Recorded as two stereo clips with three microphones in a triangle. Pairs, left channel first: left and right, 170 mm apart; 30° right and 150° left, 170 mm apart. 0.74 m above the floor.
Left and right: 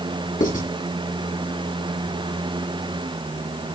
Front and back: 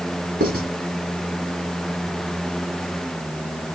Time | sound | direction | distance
0.4 | writing | 125° left | 2.5 m